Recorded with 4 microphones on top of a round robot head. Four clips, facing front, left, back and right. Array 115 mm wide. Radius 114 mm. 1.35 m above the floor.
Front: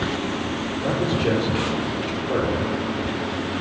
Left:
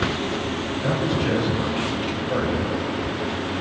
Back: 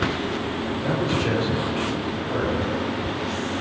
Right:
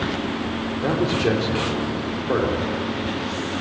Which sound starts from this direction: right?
A man speaking, at 0.8 s.